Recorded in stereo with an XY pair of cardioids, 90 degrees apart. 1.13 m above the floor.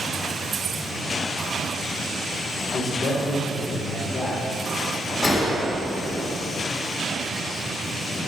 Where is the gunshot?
45° left, 2.5 m.